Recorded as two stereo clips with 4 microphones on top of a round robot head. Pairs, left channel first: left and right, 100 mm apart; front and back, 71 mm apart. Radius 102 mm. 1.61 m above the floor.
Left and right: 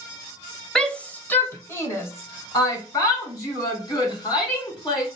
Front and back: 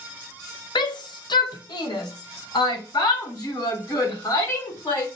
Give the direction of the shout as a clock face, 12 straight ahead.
12 o'clock.